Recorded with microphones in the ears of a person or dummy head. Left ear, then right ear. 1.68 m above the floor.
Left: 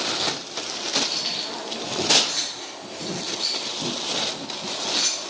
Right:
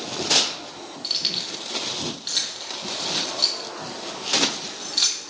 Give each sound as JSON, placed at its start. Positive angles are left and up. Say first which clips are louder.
{"t": 1.0, "sound": "keys jangling", "louder": "right 1 dB", "side_deg": -25, "distance_m": 1.3}